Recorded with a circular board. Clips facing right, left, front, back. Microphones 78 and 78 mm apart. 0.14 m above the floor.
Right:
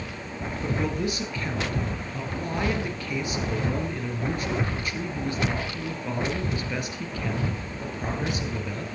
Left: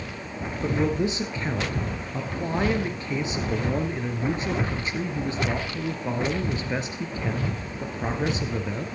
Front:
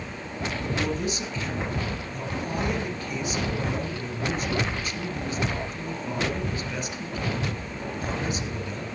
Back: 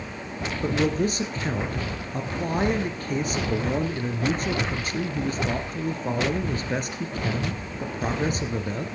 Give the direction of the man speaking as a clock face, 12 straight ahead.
7 o'clock.